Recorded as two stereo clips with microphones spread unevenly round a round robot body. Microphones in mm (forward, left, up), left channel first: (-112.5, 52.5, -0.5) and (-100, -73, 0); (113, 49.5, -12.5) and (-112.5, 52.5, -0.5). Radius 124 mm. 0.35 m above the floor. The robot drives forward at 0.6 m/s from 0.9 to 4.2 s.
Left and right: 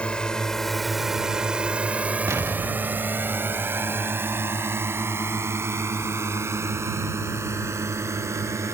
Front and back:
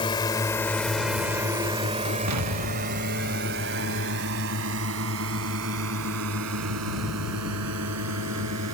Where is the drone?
25° left; by 8.8 s 150° right.